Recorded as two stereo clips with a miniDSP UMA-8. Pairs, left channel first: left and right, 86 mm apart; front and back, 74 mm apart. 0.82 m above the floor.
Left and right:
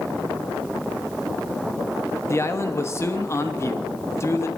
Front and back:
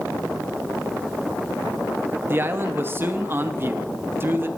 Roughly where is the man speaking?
Behind left.